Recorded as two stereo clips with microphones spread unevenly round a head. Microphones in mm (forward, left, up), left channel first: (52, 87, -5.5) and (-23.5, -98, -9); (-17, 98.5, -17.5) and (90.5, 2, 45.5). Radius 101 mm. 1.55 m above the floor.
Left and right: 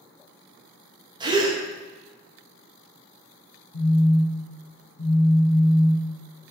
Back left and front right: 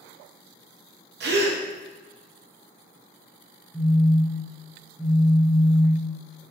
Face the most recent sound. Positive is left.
turn(degrees=40)